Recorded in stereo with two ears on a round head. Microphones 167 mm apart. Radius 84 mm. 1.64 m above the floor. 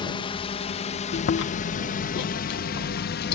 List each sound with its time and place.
0.0 s a drone: 30° left (ahead or behind); by 3.4 s 60° left (ahead or behind)
1.1 s chewing: 65° left (ahead or behind)